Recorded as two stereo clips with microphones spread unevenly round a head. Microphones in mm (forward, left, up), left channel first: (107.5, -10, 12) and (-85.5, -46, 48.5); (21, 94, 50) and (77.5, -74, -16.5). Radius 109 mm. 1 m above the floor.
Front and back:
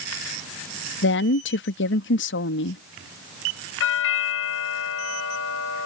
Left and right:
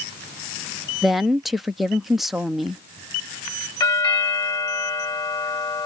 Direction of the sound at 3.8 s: 40° left.